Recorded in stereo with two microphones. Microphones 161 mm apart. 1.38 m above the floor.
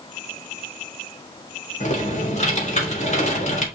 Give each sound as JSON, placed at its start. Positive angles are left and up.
{"t": 1.8, "sound": "typing on a keyboard", "side_deg": 45, "distance_m": 3.0}